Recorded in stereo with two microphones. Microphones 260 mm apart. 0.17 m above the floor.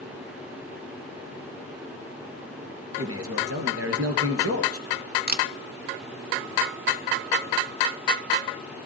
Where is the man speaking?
60° right (ahead or behind), 2 m.